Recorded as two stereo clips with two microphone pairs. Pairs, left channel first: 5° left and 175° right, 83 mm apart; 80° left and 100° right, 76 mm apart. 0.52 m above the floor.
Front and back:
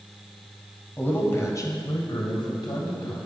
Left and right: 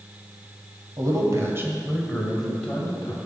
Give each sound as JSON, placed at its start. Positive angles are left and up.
{"t": 1.0, "sound": "a man speaking", "azimuth_deg": -65, "distance_m": 2.5}